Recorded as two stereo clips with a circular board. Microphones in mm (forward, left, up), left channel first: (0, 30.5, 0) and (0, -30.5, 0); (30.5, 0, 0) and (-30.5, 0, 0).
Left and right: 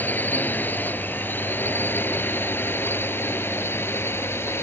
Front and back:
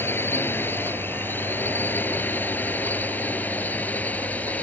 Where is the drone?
40° left; by 4.6 s 55° left.